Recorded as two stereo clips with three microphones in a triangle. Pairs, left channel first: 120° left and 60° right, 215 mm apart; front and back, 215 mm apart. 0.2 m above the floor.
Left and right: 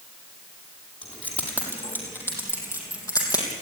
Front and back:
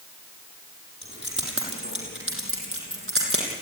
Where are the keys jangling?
155° right, 5.5 m; by 3.5 s 165° right, 5.5 m.